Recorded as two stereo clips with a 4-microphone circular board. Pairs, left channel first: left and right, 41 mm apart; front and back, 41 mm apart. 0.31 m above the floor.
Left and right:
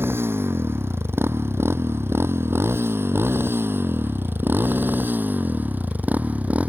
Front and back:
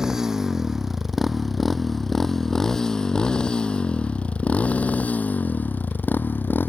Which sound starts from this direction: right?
A motorcycle, at 0.0 s.